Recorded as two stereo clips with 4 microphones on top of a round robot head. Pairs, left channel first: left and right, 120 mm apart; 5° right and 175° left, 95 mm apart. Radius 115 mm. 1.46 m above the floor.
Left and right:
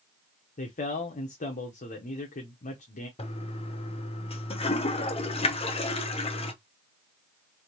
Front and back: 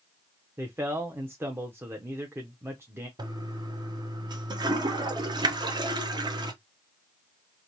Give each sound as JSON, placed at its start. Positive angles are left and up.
{"t": 0.6, "sound": "a man speaking", "azimuth_deg": 105, "distance_m": 0.8}
{"t": 3.2, "sound": "a toilet flushing", "azimuth_deg": 130, "distance_m": 0.9}